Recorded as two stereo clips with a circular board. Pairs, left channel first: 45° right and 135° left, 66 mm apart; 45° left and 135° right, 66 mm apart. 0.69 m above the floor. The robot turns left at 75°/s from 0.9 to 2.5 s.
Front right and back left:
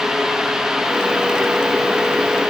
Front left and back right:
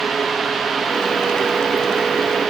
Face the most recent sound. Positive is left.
No sound to turn to.